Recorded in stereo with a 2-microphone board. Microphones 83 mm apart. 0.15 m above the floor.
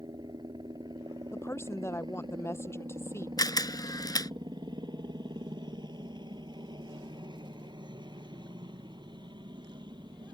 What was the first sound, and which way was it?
A helicopter, 60° right (ahead or behind).